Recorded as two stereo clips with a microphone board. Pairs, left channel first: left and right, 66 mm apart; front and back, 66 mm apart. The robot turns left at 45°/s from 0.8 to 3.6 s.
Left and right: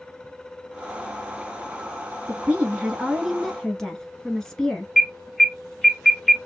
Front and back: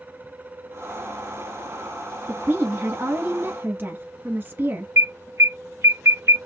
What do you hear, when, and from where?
2.3 s a woman speaking: 135° right, 1.3 m; by 4.9 s 165° left, 1.3 m
5.0 s an alarm: straight behind, 0.9 m